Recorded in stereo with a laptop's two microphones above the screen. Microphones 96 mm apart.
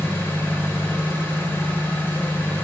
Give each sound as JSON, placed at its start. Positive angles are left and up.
{"t": 0.0, "sound": "an engine running", "side_deg": 25, "distance_m": 1.4}